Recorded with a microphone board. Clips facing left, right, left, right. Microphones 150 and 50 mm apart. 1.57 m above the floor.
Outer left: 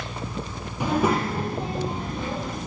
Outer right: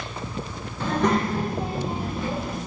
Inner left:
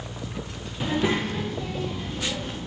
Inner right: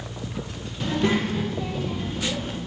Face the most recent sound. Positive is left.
turn(degrees=-5)  # may be behind; listen again after turning